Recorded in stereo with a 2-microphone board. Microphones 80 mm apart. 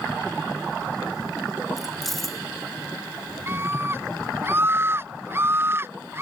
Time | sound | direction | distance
1.8 | keys jangling | 5° left (ahead or behind) | ?
3.5 | a scream | 25° right (ahead or behind) | ?